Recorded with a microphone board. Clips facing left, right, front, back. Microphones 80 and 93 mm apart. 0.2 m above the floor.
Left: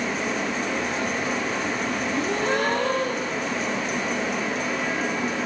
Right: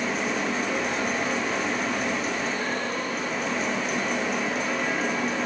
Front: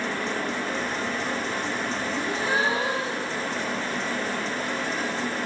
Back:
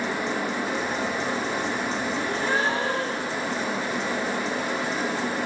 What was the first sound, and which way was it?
A gasp, 80° left.